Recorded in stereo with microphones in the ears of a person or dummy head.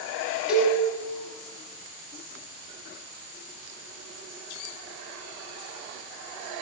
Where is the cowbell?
10° right (ahead or behind), 7.5 m.